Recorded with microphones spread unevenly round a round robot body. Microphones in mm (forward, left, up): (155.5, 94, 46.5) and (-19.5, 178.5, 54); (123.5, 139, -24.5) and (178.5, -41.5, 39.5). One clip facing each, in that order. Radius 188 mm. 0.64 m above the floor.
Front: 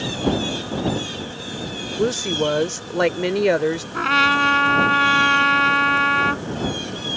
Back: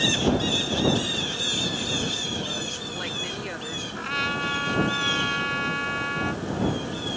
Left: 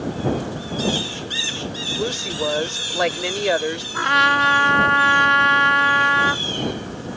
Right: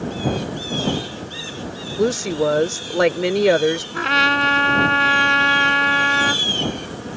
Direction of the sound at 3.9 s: 10° right.